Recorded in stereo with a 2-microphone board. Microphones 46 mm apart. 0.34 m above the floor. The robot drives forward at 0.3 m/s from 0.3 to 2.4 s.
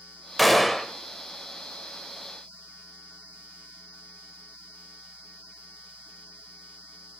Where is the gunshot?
Centre (ahead or behind), 0.7 m.